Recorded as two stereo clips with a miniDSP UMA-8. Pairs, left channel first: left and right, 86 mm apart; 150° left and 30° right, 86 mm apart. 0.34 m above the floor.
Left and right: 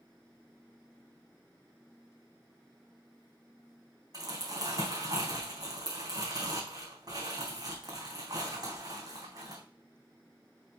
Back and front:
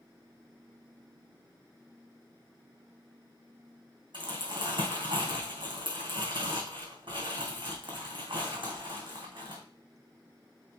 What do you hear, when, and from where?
4.1 s crumpling: 50° right, 4 m